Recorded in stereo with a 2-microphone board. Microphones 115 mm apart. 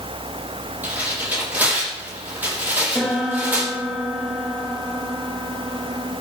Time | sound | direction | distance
0.8 | tearing paper | 15° right (ahead or behind) | 5.5 m
3.0 | a piano | centre (ahead or behind) | 4.5 m